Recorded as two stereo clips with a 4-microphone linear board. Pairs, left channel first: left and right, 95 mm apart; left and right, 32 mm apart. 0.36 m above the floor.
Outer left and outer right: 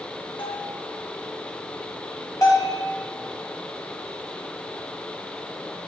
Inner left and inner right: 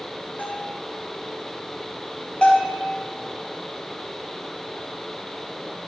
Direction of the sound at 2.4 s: 35° left (ahead or behind).